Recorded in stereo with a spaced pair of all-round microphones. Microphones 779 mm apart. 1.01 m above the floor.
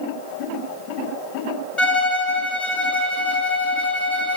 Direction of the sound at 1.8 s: 40° left (ahead or behind).